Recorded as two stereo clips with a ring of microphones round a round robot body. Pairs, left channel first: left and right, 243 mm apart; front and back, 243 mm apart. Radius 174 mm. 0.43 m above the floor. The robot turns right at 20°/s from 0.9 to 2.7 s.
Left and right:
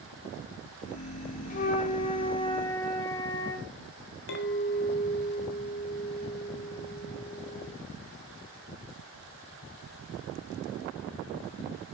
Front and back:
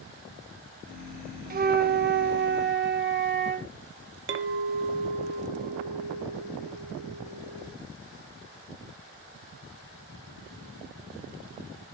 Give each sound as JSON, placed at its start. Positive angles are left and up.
{"t": 1.5, "sound": "a flute", "azimuth_deg": 140, "distance_m": 0.9}
{"t": 4.3, "sound": "a clink", "azimuth_deg": 140, "distance_m": 1.1}